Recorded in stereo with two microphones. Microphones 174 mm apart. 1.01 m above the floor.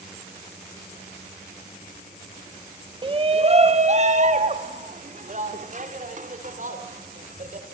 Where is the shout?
30° right (ahead or behind), 1.0 m; by 7.7 s 50° right (ahead or behind), 5.5 m.